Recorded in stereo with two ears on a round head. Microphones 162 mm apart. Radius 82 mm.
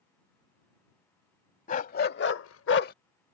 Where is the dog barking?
45° left (ahead or behind); by 2.9 s 50° left (ahead or behind).